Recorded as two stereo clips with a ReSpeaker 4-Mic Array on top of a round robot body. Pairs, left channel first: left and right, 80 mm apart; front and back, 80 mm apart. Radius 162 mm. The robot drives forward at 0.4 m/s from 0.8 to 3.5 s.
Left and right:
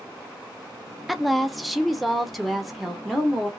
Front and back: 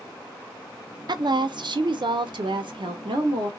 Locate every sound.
1.1 s a woman speaking: straight behind, 0.7 m